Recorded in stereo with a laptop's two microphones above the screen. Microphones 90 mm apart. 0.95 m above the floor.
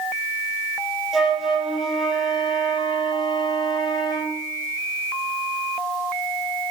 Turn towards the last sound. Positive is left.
turn(degrees=-5)  # may be behind; listen again after turning